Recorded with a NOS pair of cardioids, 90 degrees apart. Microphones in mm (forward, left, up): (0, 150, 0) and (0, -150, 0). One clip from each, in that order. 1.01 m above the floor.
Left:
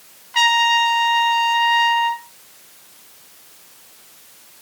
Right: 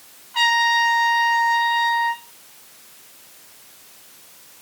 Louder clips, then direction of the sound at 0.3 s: Left 2 dB; 50° left.